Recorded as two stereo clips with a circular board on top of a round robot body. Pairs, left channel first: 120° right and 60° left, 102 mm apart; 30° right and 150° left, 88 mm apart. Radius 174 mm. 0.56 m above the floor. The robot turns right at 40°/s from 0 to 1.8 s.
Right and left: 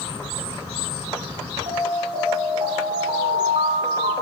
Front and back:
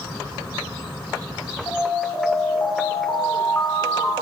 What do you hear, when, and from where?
1.7 s an alarm: 30° left, 7 m; by 4.2 s 35° left, 7 m